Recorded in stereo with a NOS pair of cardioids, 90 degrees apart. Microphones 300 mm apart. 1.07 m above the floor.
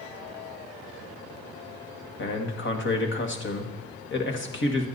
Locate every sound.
2.2 s a man speaking: 40° left, 1.7 m